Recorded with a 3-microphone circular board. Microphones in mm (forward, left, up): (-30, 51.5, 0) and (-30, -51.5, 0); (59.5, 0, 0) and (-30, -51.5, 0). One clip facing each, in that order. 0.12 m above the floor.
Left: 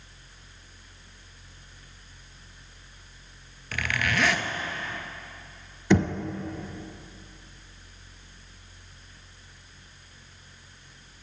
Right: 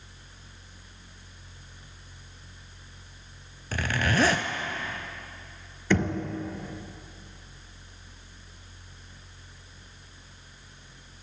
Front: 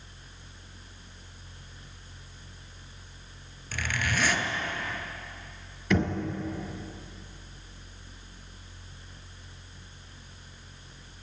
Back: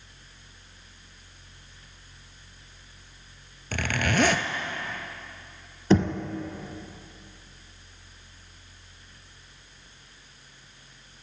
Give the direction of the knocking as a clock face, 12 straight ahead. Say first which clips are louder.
Left 3 dB, back 5 dB; 6 o'clock.